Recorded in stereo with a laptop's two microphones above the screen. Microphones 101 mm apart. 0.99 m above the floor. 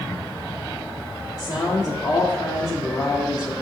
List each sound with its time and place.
1.4 s a woman speaking: 40° left (ahead or behind), 1.6 m